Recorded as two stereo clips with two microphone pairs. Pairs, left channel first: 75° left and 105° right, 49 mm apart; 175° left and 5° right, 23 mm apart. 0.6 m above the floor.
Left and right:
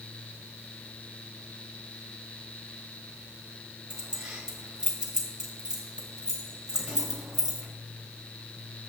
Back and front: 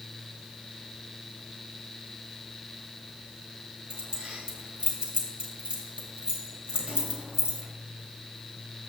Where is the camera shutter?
I don't hear a camera shutter.